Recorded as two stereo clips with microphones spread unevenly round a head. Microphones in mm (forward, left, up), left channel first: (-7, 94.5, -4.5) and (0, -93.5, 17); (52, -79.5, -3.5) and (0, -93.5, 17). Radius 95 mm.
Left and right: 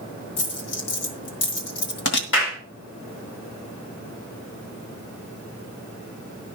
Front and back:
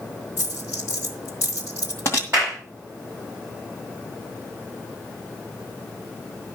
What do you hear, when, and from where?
0.4 s a dropped coin: 85° left, 2 m
2.3 s a clap: 120° left, 7 m